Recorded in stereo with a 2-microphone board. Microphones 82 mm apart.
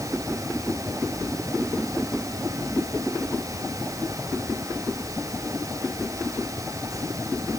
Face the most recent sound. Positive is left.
No sound to turn to.